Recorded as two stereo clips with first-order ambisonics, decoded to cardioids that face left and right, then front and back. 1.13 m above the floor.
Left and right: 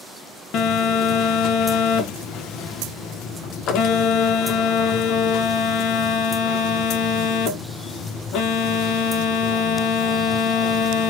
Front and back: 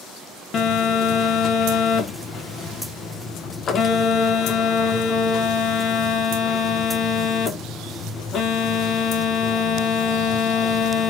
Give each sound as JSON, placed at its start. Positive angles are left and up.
{"t": 0.5, "sound": "a phone buzzing", "azimuth_deg": 55, "distance_m": 0.6}